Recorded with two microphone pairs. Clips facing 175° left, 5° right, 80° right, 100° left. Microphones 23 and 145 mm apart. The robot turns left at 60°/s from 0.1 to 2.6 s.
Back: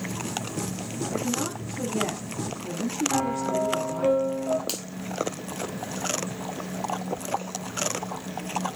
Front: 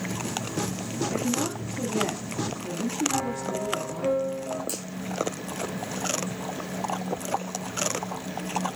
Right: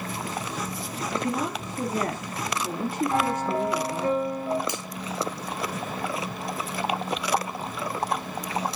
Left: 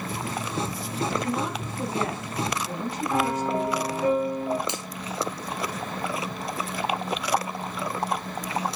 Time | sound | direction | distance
1.1 | a woman speaking | 5° right | 2.5 m
3.1 | a piano | 175° left | 3 m
4.7 | a finger snap | 165° left | 1.9 m